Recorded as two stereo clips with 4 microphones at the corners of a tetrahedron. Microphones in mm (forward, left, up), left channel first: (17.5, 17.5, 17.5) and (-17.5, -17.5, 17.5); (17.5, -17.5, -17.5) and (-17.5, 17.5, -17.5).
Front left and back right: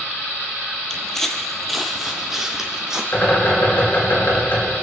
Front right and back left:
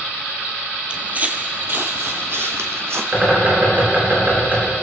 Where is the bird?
85° left, 6.5 m.